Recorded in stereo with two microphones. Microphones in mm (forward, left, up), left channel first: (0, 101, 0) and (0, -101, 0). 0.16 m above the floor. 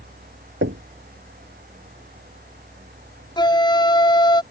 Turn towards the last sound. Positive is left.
turn(degrees=20)  # may be behind; listen again after turning